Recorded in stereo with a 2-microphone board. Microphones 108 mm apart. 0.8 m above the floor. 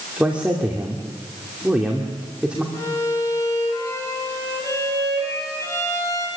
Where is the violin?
30° left (ahead or behind), 5 m.